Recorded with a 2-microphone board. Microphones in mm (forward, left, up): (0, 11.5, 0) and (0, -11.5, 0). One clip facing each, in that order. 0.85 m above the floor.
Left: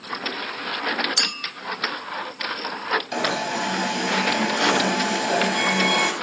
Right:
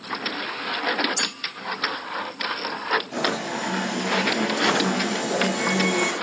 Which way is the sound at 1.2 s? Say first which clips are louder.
Left 4 dB; 85° left.